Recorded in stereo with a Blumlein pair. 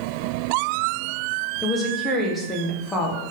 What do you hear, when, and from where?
1.6 s a woman speaking: 10° left, 0.7 m